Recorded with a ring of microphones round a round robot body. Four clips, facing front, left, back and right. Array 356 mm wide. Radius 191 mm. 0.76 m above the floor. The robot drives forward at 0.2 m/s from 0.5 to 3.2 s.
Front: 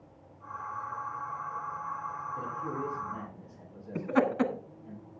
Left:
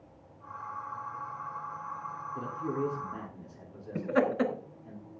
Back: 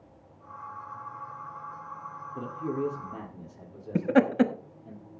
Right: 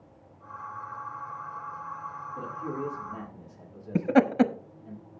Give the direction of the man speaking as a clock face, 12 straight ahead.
7 o'clock.